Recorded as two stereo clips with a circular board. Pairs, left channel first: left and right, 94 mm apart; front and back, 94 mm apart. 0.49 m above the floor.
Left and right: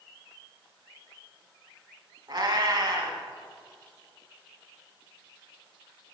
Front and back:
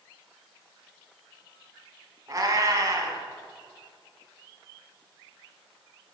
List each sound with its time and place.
2.3 s a cat meowing: 130° right, 1.2 m